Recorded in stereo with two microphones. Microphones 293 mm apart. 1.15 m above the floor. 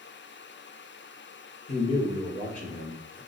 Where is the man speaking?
75° left (ahead or behind), 1.5 m; by 3.2 s 80° left, 2 m.